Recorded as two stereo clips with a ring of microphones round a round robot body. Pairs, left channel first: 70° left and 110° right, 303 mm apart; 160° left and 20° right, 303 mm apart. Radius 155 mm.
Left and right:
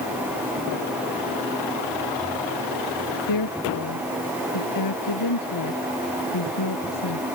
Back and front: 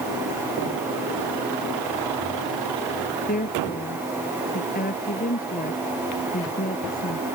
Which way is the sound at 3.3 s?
95° left.